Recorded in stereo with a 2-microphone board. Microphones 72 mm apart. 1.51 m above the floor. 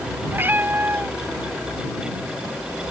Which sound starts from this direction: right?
A cat meowing, at 0.3 s.